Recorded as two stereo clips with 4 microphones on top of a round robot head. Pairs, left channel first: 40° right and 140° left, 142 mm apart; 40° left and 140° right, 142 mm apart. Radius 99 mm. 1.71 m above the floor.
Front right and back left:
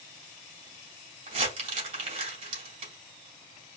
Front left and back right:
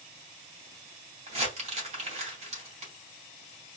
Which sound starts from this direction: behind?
Crumpling, at 1.3 s.